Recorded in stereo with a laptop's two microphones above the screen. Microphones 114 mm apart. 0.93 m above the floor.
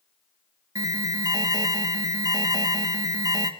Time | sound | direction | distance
0.8 | an alarm | 35° right (ahead or behind) | 1.7 m